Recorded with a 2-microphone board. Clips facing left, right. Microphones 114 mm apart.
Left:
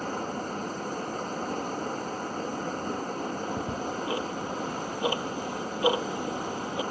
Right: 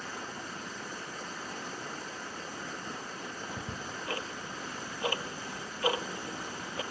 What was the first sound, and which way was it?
Running water, 50° left (ahead or behind).